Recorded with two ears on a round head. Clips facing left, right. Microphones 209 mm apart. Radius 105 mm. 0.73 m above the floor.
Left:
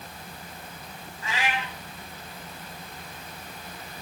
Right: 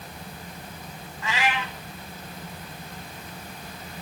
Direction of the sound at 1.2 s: 55° right (ahead or behind).